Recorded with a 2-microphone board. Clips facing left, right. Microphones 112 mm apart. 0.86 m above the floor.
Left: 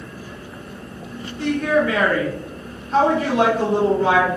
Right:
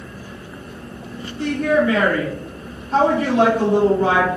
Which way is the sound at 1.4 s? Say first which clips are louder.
Right 1 dB; 35° right (ahead or behind).